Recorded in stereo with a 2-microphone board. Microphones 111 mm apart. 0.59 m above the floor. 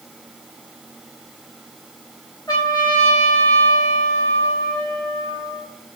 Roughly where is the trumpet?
Left.